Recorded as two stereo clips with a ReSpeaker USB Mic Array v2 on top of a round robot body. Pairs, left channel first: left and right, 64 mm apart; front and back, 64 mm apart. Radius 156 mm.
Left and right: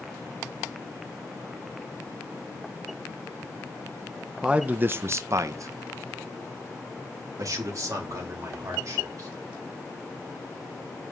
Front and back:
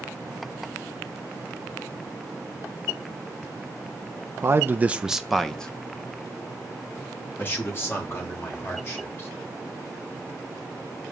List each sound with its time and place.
4.4 s a man speaking: 160° right, 0.8 m; by 9.3 s 50° right, 3.5 m